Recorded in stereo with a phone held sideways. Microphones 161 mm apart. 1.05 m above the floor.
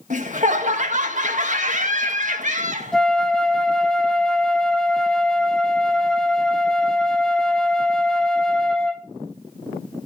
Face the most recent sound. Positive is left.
turn(degrees=5)  # may be behind; listen again after turning